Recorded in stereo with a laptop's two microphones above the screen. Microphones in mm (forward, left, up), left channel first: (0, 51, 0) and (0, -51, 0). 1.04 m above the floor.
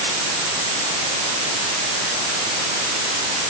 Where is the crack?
No crack in this recording.